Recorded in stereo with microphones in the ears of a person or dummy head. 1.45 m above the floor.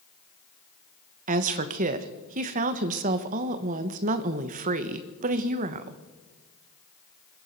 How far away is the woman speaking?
About 1.1 m.